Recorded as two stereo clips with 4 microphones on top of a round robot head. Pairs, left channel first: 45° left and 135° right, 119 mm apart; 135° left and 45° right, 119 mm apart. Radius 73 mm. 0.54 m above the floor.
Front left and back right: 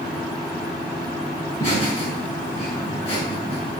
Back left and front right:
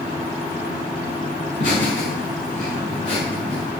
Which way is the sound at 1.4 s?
115° left.